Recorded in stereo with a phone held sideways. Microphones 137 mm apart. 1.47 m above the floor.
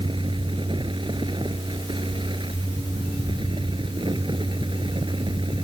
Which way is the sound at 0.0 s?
35° right (ahead or behind).